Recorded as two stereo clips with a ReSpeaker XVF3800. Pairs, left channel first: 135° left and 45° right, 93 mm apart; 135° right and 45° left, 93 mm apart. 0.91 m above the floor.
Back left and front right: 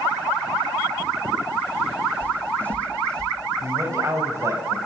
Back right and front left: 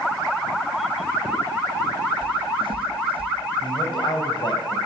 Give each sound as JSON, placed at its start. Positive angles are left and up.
{"t": 2.2, "sound": "footsteps", "azimuth_deg": 65, "distance_m": 3.0}
{"t": 3.6, "sound": "a man speaking", "azimuth_deg": -100, "distance_m": 6.0}